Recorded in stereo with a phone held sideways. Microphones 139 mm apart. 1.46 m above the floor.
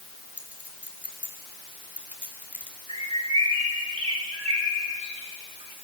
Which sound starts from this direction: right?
A bird, at 2.9 s.